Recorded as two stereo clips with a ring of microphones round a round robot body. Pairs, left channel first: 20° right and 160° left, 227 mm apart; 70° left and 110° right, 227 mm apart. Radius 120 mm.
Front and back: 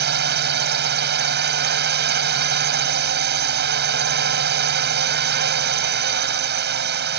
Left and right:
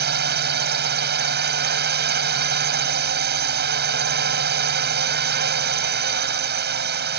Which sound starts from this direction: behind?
A drone, at 0.0 s.